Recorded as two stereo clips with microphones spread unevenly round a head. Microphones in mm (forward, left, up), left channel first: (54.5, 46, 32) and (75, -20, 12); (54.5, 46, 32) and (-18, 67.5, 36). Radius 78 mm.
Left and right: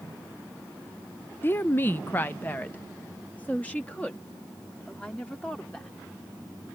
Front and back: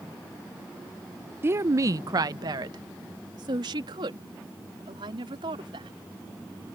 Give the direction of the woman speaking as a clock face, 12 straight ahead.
6 o'clock.